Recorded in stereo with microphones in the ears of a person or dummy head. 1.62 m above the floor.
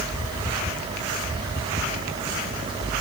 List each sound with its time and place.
Only background noise.